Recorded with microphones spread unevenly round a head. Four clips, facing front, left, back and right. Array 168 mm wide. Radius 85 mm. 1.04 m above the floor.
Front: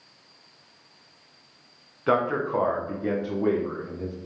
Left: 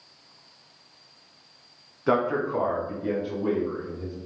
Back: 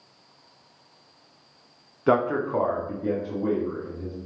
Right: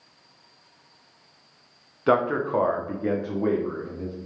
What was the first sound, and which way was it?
A man speaking, 145° right.